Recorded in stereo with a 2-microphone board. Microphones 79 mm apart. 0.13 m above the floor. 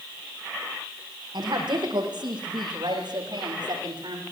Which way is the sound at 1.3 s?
75° right (ahead or behind).